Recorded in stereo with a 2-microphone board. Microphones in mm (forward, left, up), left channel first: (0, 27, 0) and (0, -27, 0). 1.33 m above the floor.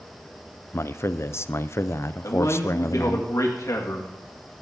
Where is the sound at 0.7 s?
55° left (ahead or behind), 0.5 m.